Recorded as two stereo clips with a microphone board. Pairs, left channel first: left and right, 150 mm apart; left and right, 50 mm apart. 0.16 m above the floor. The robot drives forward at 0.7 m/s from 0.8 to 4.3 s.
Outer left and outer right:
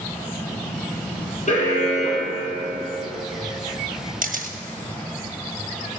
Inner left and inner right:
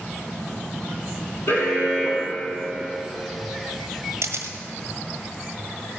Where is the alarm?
55° left (ahead or behind), 3.5 m; by 3.0 s 45° left (ahead or behind), 4 m.